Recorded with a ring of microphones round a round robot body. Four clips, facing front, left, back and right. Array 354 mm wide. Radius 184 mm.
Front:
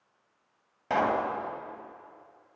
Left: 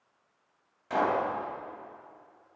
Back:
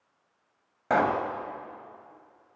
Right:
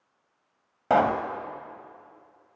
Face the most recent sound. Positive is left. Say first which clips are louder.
# right 5 dB, back 2 dB
turn(degrees=-110)